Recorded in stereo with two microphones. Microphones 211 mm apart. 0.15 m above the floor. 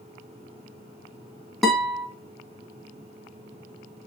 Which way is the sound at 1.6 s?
Centre (ahead or behind).